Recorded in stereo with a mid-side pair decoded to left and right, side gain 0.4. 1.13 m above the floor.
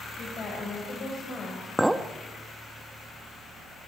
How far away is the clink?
About 1.1 m.